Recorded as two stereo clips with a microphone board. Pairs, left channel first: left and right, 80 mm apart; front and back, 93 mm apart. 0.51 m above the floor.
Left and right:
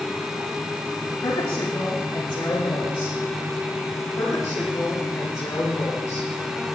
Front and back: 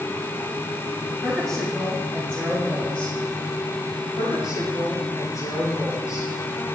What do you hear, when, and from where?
1.2 s a woman speaking: 85° left, 6.5 m; by 3.2 s 75° left, 5 m
4.2 s a woman speaking: 50° left, 7 m